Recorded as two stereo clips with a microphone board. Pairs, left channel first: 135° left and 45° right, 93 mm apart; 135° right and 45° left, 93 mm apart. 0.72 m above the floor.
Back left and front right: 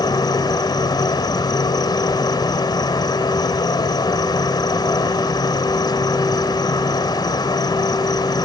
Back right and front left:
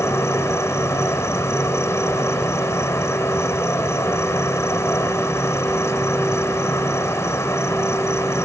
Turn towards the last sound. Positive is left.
turn(degrees=170)